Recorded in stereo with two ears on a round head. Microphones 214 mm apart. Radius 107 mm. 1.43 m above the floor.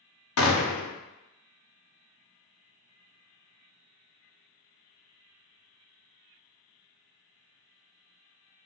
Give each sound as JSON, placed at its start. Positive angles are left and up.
{"t": 0.4, "sound": "a gunshot", "side_deg": 65, "distance_m": 0.9}